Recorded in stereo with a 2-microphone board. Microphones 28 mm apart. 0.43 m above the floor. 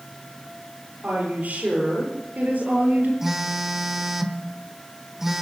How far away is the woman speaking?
About 9.5 m.